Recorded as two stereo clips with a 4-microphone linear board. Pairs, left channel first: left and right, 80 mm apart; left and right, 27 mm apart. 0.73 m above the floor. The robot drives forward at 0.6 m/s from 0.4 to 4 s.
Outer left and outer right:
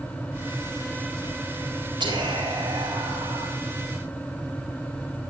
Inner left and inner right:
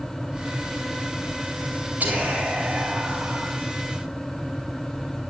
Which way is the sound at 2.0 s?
65° right (ahead or behind).